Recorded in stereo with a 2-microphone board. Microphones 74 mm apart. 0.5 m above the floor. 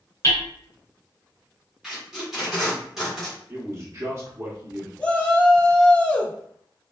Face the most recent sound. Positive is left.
turn(degrees=15)  # may be behind; listen again after turning